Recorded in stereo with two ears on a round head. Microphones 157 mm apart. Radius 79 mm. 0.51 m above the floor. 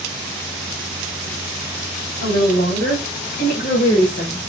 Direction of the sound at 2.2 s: 55° left (ahead or behind).